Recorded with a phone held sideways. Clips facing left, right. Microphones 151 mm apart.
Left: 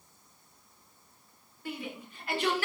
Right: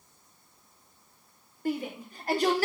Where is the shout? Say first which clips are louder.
Right 8 dB; 40° right (ahead or behind), 5 m; by 2.7 s 35° right (ahead or behind), 3.5 m.